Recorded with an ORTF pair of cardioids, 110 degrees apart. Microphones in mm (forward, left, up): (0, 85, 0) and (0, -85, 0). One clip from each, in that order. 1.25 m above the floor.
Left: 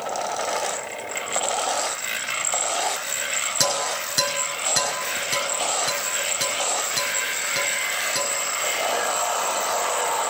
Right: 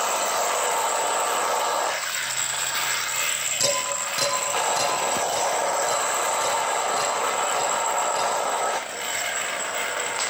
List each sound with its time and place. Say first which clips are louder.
3.6 s dishes clattering: left 1 dB; 60° left, 8.5 m